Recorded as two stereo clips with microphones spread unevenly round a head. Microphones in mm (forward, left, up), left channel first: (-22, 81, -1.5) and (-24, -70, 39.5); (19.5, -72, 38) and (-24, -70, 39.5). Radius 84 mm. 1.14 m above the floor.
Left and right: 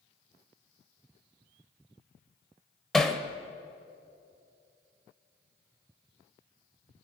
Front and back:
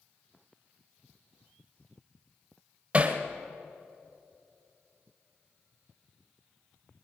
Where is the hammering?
160° right, 1.0 m.